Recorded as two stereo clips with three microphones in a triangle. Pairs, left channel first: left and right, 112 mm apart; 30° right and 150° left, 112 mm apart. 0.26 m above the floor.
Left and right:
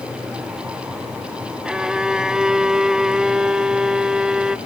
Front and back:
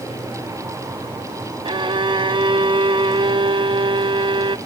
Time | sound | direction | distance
1.6 | a violin | 170° right | 0.5 m